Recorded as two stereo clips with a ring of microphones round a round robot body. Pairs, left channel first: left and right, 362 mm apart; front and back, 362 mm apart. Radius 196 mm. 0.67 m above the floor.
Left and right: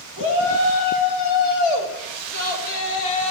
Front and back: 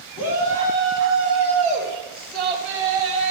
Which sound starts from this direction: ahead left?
A shout, at 0.2 s.